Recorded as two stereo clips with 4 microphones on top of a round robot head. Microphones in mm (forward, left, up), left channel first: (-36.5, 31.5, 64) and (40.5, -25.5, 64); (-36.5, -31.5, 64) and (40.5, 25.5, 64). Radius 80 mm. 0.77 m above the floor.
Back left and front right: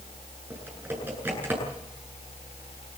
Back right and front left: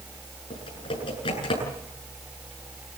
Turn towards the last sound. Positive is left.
turn(degrees=-110)